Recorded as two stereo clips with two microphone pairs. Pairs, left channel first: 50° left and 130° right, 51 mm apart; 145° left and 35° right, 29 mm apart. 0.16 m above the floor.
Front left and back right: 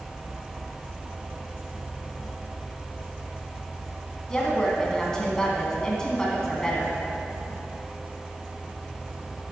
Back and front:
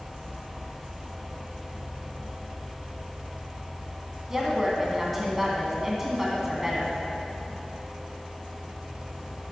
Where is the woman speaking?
10° left, 1.6 m.